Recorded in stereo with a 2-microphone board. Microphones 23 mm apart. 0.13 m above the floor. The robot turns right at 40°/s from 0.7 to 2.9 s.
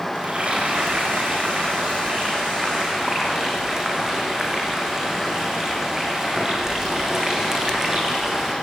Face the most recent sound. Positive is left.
turn(degrees=-20)